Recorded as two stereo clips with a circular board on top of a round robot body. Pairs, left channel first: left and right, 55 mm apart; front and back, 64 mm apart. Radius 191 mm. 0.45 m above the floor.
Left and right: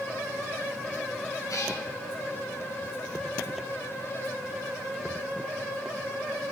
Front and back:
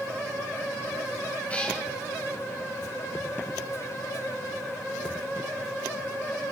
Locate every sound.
1.5 s a cat meowing: 70° left, 3 m